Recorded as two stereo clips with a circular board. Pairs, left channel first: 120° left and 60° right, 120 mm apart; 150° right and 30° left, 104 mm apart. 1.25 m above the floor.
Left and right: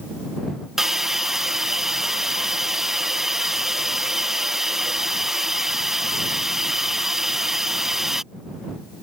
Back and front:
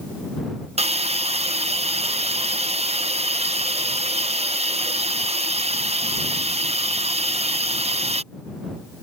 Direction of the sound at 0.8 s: 25° left.